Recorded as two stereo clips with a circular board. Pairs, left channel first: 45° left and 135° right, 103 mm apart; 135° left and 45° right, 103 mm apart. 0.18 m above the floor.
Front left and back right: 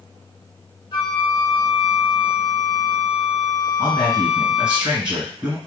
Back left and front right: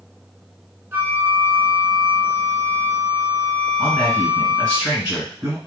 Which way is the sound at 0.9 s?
20° left.